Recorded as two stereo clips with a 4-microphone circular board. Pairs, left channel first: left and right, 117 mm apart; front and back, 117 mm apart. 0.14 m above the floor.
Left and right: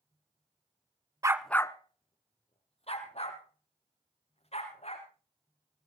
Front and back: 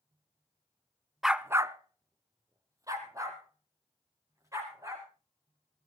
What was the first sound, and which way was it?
A dog barking, 95° right.